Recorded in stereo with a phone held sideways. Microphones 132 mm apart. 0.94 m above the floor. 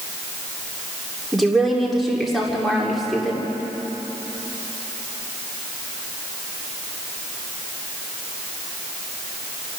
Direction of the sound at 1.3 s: Centre (ahead or behind).